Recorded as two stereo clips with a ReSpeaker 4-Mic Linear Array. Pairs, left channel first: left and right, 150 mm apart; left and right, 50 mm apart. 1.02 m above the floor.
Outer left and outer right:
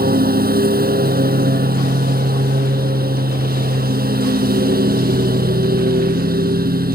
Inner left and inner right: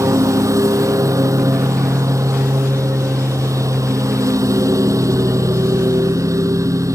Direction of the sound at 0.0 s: 85° right.